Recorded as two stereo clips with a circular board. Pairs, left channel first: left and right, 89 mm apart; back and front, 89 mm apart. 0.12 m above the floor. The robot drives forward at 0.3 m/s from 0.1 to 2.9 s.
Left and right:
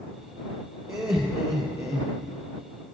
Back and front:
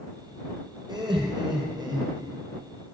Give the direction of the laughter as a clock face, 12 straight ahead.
1 o'clock.